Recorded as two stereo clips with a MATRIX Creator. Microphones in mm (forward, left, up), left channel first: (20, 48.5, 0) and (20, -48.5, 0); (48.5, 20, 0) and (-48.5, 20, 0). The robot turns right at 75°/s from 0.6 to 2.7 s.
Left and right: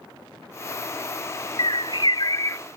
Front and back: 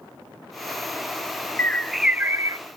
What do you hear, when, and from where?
1.6 s a bird: 65° left, 0.5 m; by 2.6 s 140° left, 0.5 m